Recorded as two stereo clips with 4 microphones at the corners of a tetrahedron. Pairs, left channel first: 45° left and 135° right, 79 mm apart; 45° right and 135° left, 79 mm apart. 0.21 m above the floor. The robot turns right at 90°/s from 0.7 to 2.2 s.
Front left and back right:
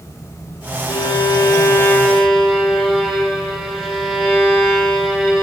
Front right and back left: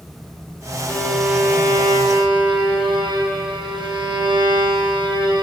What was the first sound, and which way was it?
A violin, 15° left.